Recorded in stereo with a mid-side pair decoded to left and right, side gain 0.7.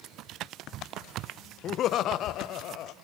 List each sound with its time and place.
1.6 s laughter: 45° left, 0.7 m; by 2.9 s 55° left, 1.3 m